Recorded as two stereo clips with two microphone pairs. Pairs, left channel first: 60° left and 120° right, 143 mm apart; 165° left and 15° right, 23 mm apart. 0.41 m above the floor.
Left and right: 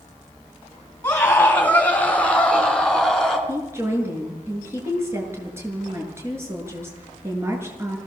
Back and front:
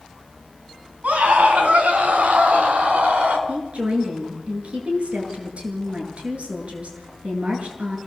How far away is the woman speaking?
About 7.5 m.